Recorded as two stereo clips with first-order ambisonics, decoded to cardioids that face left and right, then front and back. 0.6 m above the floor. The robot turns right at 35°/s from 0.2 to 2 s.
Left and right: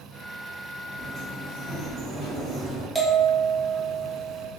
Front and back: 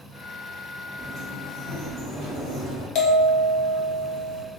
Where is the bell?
Straight ahead, 0.6 m.